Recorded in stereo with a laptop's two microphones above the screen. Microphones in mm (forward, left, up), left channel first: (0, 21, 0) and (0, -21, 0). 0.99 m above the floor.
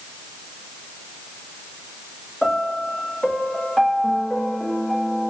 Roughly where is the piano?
Centre.